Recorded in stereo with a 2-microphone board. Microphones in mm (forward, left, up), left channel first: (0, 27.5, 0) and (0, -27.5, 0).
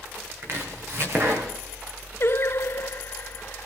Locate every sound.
0.4 s chopping: 45° right (ahead or behind), 4 m
2.2 s singing: 50° left (ahead or behind), 0.6 m